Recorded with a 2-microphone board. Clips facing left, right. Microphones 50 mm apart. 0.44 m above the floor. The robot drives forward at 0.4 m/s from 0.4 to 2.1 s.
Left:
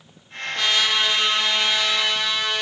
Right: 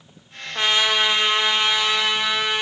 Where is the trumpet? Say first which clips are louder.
Right 2 dB; 25° right (ahead or behind), 0.8 m; by 2.6 s 20° right (ahead or behind), 0.9 m.